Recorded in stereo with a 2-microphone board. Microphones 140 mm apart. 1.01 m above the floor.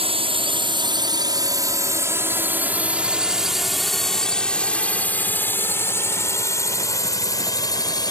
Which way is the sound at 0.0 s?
45° right (ahead or behind).